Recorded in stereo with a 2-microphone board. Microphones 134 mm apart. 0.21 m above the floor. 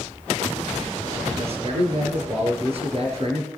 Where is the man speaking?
50° right (ahead or behind), 4 m.